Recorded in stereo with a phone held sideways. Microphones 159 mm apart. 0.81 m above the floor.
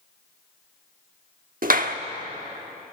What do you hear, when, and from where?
1.6 s a clap: 65° right (ahead or behind), 1.1 m